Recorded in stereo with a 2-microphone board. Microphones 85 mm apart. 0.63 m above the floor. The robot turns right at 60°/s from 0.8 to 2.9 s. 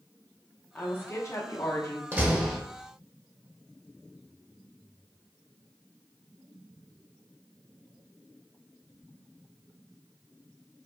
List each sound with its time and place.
0.8 s a woman speaking: 35° left, 0.7 m; by 2.0 s 105° left, 0.7 m
2.1 s a door slam: 25° right (ahead or behind), 0.7 m; by 2.6 s centre (ahead or behind), 0.7 m